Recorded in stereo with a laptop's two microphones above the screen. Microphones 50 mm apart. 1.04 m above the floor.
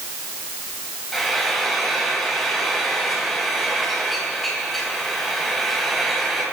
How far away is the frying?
About 3 m.